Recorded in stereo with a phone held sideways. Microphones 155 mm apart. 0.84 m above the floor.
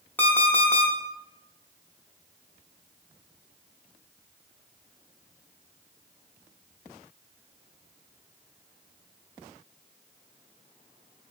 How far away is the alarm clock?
About 0.7 m.